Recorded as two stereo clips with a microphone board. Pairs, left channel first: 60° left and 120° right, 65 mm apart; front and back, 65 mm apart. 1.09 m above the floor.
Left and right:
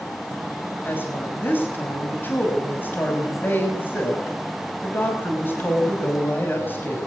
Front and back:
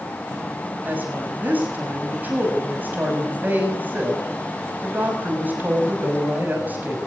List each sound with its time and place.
0.8 s a woman speaking: 120° left, 6 m